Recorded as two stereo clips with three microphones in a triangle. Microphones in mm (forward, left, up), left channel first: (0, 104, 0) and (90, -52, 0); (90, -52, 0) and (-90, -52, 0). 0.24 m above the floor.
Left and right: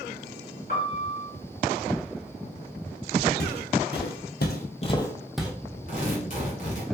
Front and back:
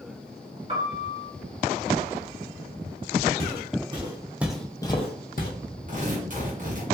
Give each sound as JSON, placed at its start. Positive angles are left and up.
{"t": 0.7, "sound": "a piano", "azimuth_deg": 135, "distance_m": 1.5}
{"t": 3.4, "sound": "footsteps", "azimuth_deg": 135, "distance_m": 1.1}
{"t": 5.9, "sound": "tearing paper", "azimuth_deg": 150, "distance_m": 1.5}